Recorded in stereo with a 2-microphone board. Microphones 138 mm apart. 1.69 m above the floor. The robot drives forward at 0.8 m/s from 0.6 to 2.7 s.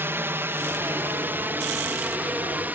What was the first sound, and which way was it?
A drone, 15° right (ahead or behind).